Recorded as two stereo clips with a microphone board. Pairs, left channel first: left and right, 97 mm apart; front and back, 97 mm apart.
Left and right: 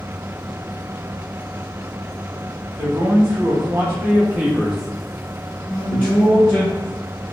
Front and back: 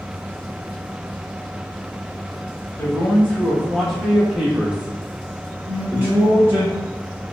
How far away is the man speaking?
About 1.5 m.